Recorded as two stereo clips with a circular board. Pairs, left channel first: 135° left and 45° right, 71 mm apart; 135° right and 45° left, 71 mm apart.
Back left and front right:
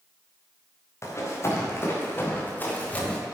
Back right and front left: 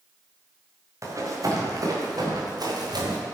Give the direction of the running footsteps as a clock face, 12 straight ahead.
9 o'clock.